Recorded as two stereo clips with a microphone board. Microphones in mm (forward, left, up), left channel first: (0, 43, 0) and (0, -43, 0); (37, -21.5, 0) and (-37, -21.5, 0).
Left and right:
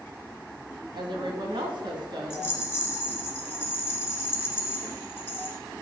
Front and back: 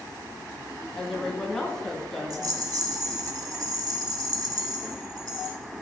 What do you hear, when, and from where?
0.9 s a woman speaking: 80° right, 2 m
2.3 s a rattle: 155° left, 1.7 m